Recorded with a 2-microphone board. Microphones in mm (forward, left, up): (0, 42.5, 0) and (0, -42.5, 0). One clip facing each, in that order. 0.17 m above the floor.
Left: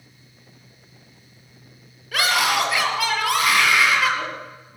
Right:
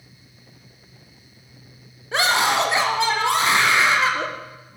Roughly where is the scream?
Right.